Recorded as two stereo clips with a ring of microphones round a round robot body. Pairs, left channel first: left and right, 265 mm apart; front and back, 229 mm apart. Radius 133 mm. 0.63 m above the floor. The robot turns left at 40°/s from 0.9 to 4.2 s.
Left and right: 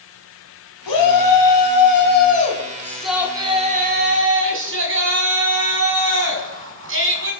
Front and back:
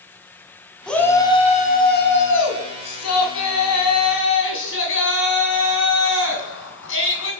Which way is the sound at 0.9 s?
85° left.